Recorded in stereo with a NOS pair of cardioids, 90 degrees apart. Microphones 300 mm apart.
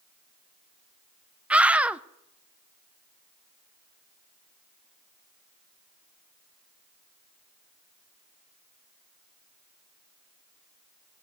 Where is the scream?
5° right, 0.6 m.